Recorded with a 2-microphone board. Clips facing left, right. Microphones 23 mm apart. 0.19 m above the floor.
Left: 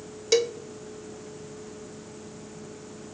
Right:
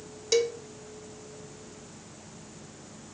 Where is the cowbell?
10° left (ahead or behind), 0.6 m.